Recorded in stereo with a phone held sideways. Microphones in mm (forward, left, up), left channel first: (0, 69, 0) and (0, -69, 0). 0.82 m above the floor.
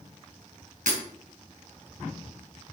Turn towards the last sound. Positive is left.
turn(degrees=-70)  # may be behind; listen again after turning